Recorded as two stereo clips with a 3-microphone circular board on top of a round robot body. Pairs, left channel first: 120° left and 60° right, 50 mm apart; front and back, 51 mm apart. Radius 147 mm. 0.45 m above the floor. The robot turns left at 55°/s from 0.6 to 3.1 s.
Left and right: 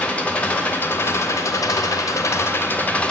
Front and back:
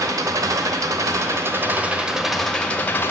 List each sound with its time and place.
0.0 s an engine running: 175° right, 0.8 m; by 3.1 s 50° left, 0.8 m